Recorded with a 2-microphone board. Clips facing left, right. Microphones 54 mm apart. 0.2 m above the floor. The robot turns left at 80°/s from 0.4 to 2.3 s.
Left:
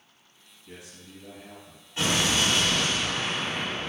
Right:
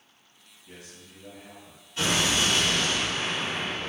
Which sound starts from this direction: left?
An explosion, at 2.0 s.